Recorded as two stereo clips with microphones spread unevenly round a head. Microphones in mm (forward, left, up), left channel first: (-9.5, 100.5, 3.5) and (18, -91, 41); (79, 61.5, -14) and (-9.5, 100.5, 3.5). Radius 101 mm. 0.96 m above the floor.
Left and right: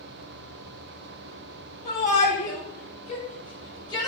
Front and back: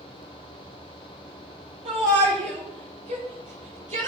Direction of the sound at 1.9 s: 150° left.